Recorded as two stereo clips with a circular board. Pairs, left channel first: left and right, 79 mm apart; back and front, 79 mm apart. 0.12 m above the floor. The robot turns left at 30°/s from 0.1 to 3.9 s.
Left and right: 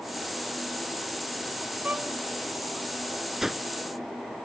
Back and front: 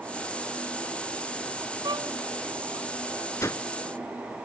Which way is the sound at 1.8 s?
20° right.